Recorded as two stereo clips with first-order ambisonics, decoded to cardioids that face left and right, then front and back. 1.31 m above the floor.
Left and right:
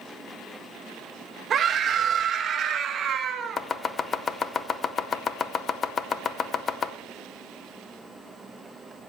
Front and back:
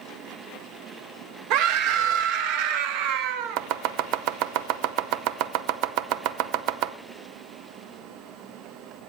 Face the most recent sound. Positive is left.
turn(degrees=155)